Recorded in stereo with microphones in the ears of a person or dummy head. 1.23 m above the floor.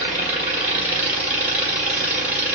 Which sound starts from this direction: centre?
An engine running, at 0.0 s.